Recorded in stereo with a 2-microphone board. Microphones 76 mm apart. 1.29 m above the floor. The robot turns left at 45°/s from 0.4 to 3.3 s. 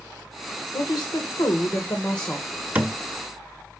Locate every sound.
0.7 s a woman speaking: 85° left, 1.2 m; by 2.5 s 5° left, 1.2 m
2.8 s a thud: 25° right (ahead or behind), 1.0 m; by 2.9 s 20° right (ahead or behind), 1.0 m